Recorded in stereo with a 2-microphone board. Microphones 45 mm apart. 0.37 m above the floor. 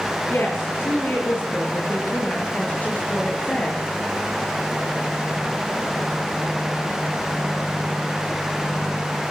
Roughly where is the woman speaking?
Left.